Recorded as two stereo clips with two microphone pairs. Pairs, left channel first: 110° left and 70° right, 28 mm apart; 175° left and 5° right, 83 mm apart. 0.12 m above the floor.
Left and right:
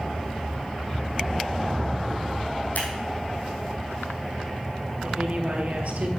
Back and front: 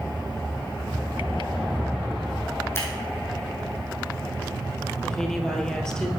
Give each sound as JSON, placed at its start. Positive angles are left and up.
{"t": 2.8, "sound": "scissors", "azimuth_deg": 115, "distance_m": 3.5}
{"t": 5.0, "sound": "a woman speaking", "azimuth_deg": -105, "distance_m": 2.5}